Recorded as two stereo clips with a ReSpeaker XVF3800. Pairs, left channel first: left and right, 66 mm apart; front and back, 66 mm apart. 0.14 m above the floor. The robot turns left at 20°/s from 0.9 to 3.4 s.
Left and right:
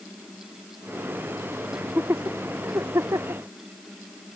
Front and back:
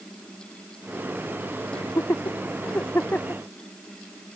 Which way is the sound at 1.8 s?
30° right.